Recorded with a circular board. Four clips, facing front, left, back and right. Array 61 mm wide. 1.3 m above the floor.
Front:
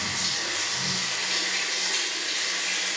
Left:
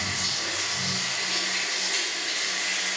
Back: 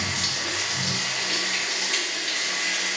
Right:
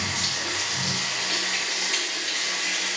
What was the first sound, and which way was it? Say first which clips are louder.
Running water: right 2 dB, back 2 dB; 140° right.